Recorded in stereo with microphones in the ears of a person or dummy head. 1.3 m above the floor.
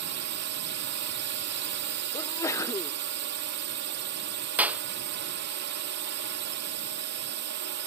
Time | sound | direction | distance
0.0 | a drone | 55° right (ahead or behind) | ?
2.1 | a sneeze | 15° left (ahead or behind) | ?
4.6 | a clap | 5° right (ahead or behind) | ?